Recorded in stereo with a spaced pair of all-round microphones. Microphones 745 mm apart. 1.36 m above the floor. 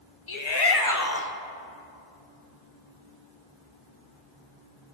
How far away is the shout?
About 1.2 m.